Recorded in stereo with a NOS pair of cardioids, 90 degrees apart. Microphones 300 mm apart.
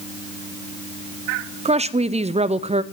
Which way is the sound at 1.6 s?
20° right.